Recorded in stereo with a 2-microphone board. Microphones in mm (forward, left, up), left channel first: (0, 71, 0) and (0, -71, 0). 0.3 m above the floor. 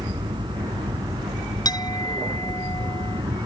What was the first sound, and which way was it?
An aircraft, 30° right (ahead or behind).